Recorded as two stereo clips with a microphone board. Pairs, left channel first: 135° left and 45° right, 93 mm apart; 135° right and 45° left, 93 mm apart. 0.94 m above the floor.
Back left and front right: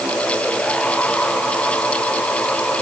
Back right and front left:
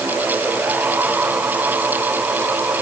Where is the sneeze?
I don't hear a sneeze.